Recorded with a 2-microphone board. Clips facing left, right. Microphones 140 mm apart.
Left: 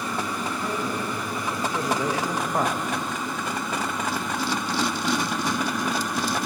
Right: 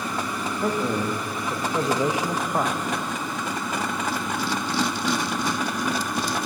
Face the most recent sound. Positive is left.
turn(degrees=10)  # may be behind; listen again after turning